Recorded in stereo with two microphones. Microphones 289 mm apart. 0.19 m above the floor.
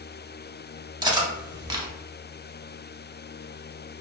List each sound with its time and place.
1.0 s cutlery clinking: 15° right (ahead or behind), 0.6 m